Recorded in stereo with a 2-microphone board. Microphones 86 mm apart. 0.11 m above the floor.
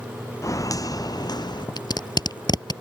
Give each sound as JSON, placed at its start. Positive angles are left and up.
{"t": 0.4, "sound": "footsteps", "side_deg": 40}
{"t": 1.8, "sound": "tape being pulled", "side_deg": 55}